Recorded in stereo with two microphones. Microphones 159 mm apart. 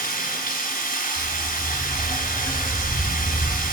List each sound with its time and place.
0.0 s running water: 60° left (ahead or behind), 1.6 m
1.1 s a dog barking: 85° left, 6.5 m